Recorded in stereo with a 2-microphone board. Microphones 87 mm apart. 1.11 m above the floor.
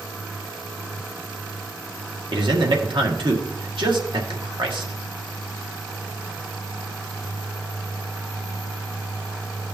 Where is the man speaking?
65° right (ahead or behind), 1.7 m.